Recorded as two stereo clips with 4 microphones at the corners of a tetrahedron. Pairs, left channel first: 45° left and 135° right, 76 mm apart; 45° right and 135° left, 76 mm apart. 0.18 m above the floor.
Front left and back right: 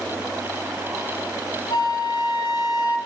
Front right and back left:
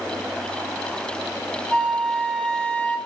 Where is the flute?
30° left, 0.7 m.